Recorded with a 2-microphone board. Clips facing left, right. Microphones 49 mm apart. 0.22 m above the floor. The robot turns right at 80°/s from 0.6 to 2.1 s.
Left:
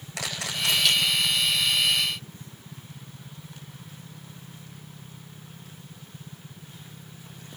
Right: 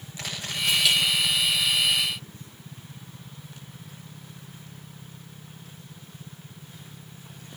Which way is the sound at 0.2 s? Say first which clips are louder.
Left 1 dB; 85° left.